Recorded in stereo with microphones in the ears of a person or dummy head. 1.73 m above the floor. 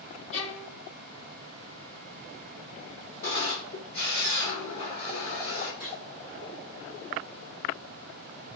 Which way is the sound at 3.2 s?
15° left (ahead or behind).